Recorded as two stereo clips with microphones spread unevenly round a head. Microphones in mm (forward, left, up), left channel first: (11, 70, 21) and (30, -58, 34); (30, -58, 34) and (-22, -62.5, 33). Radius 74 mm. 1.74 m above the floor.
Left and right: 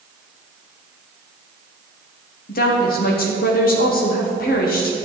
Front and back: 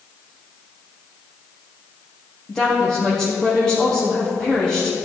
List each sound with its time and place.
2.5 s a woman speaking: 90° left, 1.5 m